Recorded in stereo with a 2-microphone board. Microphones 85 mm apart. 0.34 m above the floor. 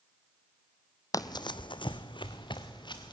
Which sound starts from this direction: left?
Running footsteps, at 1.1 s.